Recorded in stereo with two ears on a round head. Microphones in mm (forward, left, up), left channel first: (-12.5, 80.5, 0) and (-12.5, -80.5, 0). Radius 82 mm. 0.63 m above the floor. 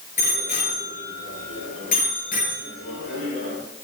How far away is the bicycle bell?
About 9 m.